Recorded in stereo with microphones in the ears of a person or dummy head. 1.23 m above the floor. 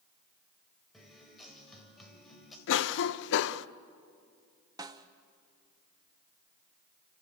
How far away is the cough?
About 0.6 m.